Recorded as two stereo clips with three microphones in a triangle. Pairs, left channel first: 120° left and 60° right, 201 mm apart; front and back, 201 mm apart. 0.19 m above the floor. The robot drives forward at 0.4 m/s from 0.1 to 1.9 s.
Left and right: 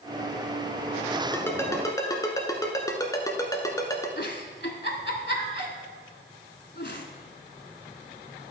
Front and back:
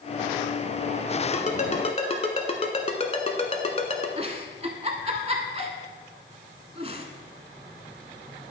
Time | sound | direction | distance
1.3 | a ringtone | 45° left | 1.3 m
4.2 | a giggle | 125° left | 1.0 m